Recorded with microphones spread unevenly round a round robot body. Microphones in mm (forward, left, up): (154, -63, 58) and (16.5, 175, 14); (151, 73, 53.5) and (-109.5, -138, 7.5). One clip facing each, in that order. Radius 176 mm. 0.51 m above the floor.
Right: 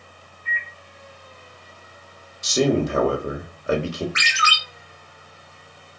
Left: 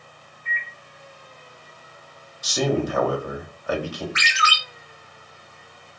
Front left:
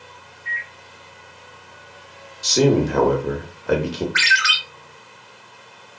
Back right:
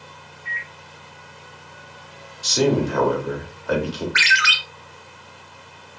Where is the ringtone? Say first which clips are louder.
Left 1 dB, even; 85° right, 1.4 m.